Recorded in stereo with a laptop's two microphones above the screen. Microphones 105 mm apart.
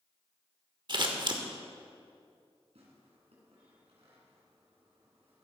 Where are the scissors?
50° right (ahead or behind), 1.1 m.